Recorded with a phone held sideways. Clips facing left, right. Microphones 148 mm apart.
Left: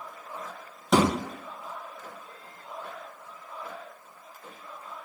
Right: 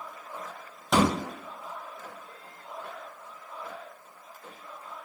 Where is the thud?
5° right (ahead or behind), 1.4 m.